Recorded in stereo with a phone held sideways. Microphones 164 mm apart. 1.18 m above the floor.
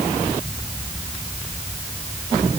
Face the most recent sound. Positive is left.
No sound to turn to.